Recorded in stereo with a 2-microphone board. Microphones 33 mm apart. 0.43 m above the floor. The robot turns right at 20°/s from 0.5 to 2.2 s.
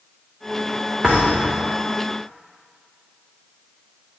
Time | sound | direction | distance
1.0 | a thud | 25° right (ahead or behind) | 4 m